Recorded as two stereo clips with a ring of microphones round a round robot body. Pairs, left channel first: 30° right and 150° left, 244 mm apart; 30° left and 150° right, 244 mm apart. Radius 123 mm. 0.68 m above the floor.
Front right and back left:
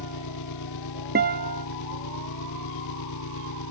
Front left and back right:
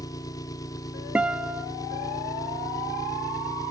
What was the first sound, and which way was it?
An engine running, 45° right.